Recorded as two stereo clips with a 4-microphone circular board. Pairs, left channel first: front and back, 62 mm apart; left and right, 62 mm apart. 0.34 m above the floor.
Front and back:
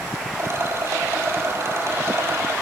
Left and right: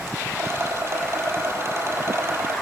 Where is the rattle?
135° right, 1.9 m.